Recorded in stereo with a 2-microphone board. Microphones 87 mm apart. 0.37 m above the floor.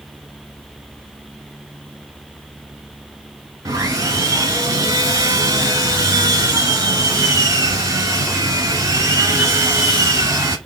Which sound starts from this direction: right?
Sawing, at 3.6 s.